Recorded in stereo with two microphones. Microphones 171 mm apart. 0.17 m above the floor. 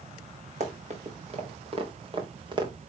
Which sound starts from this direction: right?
Running footsteps, at 0.6 s.